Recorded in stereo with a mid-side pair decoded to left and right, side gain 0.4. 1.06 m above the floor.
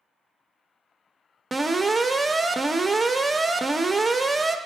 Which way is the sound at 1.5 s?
25° right.